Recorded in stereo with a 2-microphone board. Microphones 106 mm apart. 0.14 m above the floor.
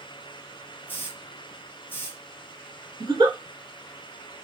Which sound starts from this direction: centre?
A hiss, at 0.9 s.